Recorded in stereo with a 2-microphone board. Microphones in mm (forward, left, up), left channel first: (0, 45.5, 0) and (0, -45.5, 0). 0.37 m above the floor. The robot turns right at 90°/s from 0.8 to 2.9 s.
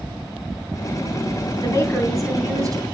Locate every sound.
1.6 s a woman speaking: 130° left, 3 m; by 2.8 s 130° right, 3 m